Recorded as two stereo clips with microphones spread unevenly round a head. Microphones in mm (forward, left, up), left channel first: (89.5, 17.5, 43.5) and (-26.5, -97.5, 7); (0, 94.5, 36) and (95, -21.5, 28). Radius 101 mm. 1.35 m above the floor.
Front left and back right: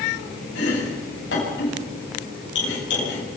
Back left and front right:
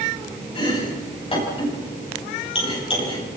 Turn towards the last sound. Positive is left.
turn(degrees=80)